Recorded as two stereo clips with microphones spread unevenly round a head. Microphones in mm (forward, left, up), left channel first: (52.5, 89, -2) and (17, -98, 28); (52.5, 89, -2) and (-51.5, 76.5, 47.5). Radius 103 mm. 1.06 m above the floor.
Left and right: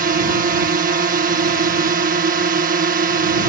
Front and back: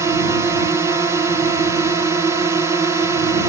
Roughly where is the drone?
Right.